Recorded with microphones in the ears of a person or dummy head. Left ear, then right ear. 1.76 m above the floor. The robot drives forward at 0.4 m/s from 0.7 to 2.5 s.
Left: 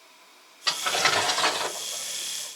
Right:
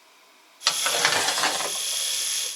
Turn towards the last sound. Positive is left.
turn(degrees=-55)  # may be behind; listen again after turning